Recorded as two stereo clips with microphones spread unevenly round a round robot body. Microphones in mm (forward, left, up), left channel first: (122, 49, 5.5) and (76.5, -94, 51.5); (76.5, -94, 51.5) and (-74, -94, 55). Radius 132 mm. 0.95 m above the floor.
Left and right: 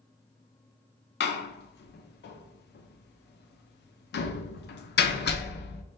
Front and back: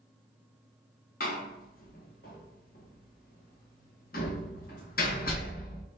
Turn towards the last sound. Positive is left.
turn(degrees=55)